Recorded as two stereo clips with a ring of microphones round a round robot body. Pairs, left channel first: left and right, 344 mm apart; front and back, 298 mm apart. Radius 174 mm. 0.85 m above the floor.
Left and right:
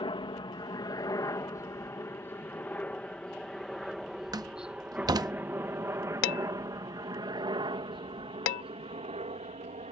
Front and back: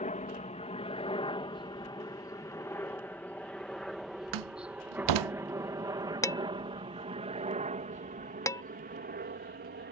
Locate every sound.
0.0 s a helicopter: 30° left; by 9.9 s 150° right
4.3 s a door slam: 170° right
6.2 s dishes clattering: 80° left